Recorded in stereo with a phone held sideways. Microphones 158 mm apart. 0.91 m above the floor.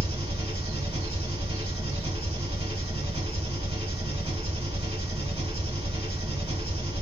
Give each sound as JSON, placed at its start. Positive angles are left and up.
{"t": 0.0, "sound": "an engine running", "side_deg": -35, "distance_m": 2.0}